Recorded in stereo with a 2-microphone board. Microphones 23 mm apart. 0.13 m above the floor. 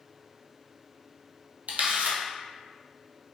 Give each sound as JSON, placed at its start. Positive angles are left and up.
{"t": 1.7, "sound": "a camera shutter", "side_deg": -70, "distance_m": 0.8}